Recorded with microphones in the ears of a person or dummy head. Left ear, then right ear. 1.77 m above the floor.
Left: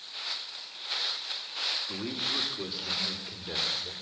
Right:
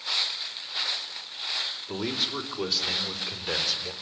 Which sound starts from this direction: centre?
A man speaking, at 1.9 s.